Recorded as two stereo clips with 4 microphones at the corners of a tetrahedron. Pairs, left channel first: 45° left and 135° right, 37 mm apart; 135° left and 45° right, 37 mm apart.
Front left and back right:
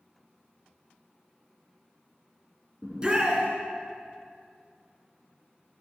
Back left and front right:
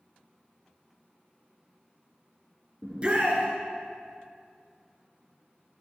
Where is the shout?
80° right, 1.3 m.